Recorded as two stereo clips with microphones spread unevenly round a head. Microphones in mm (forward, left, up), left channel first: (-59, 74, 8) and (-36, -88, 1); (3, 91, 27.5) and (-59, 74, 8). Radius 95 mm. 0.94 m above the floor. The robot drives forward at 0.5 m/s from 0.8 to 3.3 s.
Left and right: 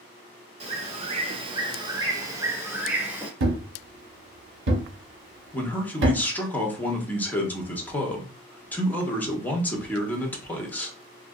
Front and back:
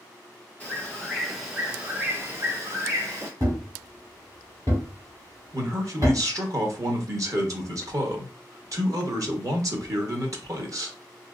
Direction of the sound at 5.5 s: Straight behind.